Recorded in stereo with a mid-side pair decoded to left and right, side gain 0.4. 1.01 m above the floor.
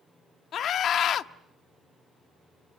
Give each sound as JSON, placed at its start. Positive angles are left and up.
{"t": 0.5, "sound": "a scream", "azimuth_deg": 70, "distance_m": 0.9}